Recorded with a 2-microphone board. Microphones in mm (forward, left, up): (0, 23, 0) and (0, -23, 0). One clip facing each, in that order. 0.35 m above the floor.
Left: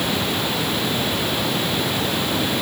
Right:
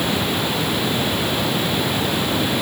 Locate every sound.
0.0 s running water: centre (ahead or behind)